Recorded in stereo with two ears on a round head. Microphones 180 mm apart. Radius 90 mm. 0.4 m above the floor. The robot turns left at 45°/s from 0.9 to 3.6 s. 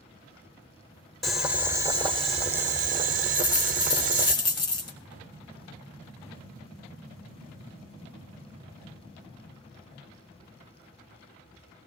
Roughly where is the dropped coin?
Centre.